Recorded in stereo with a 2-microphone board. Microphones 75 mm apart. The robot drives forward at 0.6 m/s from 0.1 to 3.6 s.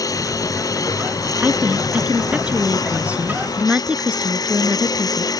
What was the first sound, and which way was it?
A lawn mower, 50° left (ahead or behind).